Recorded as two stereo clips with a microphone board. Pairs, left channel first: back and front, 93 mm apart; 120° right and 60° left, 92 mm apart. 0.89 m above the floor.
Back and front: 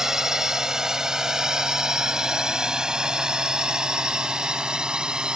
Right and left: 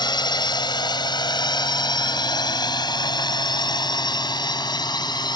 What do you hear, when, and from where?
0.0 s a drone: 85° right; by 5.4 s 80° right